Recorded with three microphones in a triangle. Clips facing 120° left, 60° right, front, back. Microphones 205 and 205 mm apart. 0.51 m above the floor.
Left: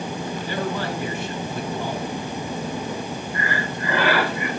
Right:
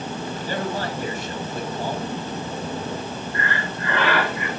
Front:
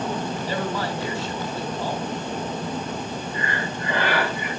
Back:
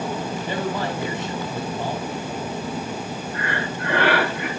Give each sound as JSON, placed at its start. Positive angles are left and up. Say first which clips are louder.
{"t": 0.5, "sound": "a man speaking", "louder": "even, back 3 dB", "azimuth_deg": -110, "distance_m": 7.0}
{"t": 3.3, "sound": "breathing", "louder": "left 1 dB, back 1 dB", "azimuth_deg": -155, "distance_m": 4.0}